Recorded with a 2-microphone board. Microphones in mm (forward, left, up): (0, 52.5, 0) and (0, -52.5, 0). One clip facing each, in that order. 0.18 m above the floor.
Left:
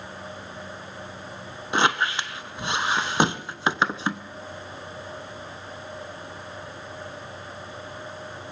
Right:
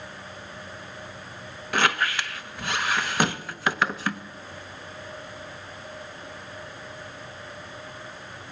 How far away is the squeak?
About 0.5 m.